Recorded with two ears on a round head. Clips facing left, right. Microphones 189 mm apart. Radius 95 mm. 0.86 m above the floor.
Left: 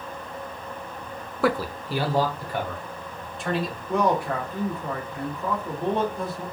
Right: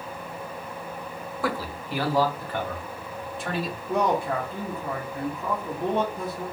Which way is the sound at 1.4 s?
55° left (ahead or behind).